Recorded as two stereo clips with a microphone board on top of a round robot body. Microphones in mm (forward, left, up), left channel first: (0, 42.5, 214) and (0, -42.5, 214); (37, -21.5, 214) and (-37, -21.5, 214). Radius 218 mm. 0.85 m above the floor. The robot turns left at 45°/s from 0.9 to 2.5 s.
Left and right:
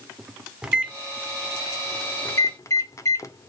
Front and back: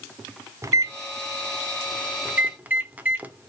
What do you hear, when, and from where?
0.6 s a microwave: 165° right, 0.7 m; by 3.5 s 125° left, 0.7 m